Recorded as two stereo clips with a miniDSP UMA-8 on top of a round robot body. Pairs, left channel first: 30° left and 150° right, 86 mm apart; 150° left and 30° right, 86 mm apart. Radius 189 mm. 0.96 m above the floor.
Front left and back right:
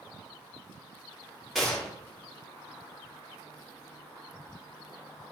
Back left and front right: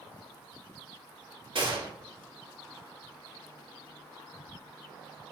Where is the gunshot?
60° right, 2.5 m.